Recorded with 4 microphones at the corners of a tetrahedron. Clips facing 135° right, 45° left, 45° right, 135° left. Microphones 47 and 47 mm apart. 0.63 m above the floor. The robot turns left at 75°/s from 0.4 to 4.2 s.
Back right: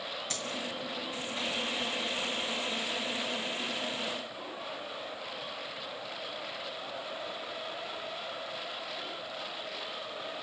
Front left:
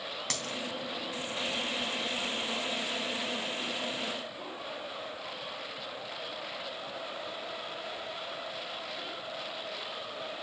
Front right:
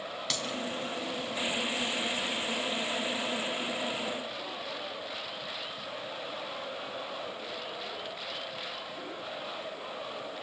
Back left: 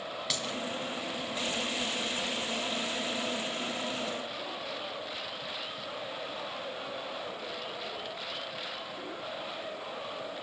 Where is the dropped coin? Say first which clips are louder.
Front left 2 dB, front right 1 dB; 50° left, 2.5 m; by 0.5 s 40° left, 2.5 m.